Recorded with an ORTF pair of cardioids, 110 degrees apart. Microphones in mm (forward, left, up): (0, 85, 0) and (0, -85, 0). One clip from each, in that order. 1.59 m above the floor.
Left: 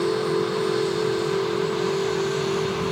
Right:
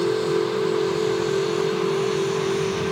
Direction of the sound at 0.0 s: 10° right.